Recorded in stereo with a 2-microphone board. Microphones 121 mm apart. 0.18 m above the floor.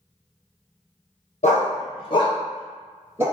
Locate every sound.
1.4 s a dog barking: 70° left (ahead or behind), 1.4 m; by 3.2 s 20° right (ahead or behind), 1.2 m